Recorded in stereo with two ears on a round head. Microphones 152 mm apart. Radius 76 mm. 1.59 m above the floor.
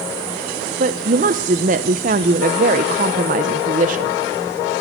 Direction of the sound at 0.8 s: 50° right (ahead or behind).